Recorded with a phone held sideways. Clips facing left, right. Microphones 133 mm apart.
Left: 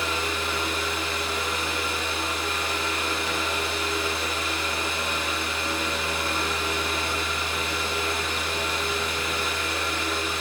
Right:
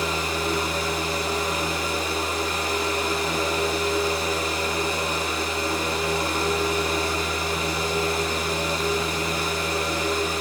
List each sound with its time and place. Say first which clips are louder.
0.0 s a fan: right 3 dB; 40° right (ahead or behind), 1.3 m